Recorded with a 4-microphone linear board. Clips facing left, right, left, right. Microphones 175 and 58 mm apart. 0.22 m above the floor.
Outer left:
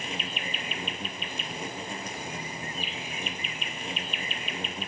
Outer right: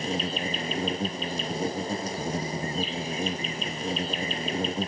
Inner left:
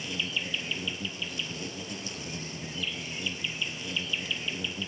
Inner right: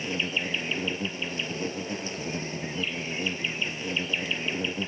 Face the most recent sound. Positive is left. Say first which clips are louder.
# outer right 8 dB, inner right 4 dB
turn(degrees=-40)  # may be behind; listen again after turning